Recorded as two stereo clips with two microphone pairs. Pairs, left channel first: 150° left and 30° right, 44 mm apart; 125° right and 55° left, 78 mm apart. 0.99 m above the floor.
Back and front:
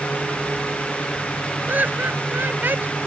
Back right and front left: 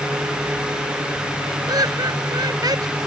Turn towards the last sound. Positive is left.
turn(degrees=20)